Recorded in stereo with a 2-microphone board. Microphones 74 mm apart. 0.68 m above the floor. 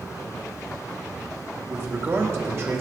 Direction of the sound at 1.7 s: 35° right (ahead or behind).